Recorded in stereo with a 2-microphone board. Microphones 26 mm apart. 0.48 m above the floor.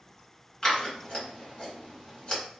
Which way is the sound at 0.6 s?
30° left (ahead or behind).